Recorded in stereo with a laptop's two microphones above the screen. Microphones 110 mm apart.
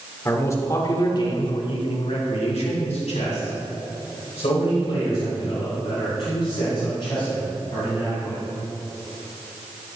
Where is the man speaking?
25° left (ahead or behind), 3 m; by 8.4 s 50° left (ahead or behind), 8.5 m.